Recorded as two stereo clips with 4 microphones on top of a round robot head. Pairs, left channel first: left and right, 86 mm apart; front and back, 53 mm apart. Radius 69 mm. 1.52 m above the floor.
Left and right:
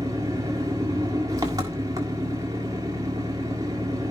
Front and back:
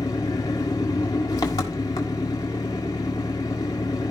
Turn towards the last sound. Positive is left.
turn(degrees=-30)